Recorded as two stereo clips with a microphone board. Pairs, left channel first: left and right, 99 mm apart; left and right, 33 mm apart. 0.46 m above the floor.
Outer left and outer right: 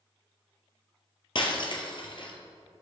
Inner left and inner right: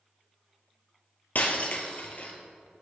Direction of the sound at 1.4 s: 55° left (ahead or behind).